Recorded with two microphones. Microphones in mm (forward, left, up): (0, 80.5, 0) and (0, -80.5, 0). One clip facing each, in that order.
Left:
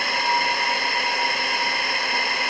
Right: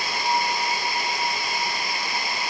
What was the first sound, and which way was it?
A drone, 70° left (ahead or behind).